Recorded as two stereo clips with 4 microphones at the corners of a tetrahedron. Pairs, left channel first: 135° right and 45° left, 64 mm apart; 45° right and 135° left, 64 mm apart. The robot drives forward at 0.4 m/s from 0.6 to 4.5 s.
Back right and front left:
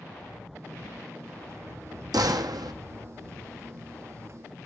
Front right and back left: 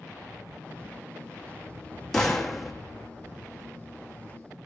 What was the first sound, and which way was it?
A gunshot, 35° left.